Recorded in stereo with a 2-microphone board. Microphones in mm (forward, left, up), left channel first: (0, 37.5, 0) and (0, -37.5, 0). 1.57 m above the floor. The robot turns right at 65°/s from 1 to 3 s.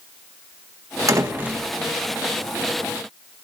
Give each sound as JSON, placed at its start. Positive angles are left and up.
{"t": 1.1, "sound": "a door slam", "azimuth_deg": -50, "distance_m": 1.5}